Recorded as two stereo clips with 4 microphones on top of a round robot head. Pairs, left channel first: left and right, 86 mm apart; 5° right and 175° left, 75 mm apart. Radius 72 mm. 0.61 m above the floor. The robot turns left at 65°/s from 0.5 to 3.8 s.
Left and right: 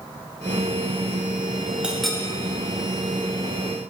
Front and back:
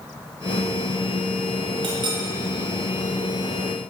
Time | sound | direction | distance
1.8 | a clink | 165° right | 1.5 m